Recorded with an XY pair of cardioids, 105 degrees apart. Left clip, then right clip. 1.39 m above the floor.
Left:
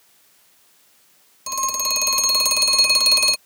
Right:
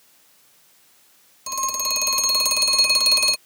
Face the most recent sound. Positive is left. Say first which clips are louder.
# left 2 dB
turn(degrees=15)